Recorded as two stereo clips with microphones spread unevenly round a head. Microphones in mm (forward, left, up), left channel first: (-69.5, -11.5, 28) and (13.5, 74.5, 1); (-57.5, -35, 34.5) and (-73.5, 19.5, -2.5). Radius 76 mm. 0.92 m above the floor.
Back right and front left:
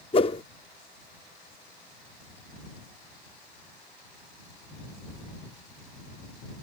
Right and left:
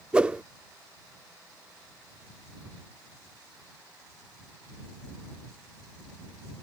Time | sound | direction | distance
0.1 | a whoosh | 165° right | ?